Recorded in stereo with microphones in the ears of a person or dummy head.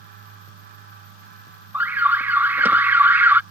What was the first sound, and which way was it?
An alarm, 10° right (ahead or behind).